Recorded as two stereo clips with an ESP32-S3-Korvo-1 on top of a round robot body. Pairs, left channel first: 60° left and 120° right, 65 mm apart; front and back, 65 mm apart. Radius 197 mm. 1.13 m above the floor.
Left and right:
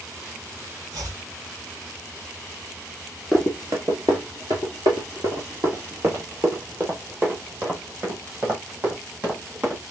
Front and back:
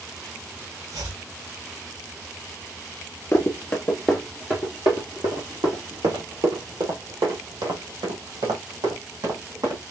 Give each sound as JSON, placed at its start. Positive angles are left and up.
{"t": 0.9, "sound": "chopping", "azimuth_deg": -150, "distance_m": 2.5}
{"t": 3.3, "sound": "running footsteps", "azimuth_deg": -50, "distance_m": 1.4}